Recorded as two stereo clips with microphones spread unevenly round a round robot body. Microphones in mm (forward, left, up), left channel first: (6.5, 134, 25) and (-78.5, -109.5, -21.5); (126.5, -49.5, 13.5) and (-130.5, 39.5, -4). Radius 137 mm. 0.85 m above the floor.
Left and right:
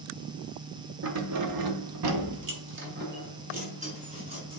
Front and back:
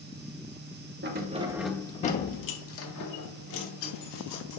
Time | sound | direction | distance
1.0 | keys jangling | 145° right | 1.4 m